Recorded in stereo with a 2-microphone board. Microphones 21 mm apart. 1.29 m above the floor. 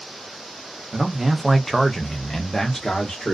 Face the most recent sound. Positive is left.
turn(degrees=40)  # may be behind; listen again after turning